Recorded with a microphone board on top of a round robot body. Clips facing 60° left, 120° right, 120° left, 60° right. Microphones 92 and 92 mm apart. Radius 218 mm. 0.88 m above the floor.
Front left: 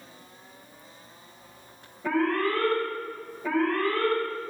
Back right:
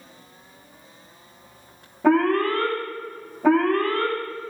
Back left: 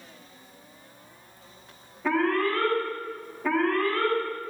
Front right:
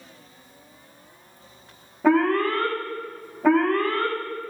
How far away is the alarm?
About 4.5 m.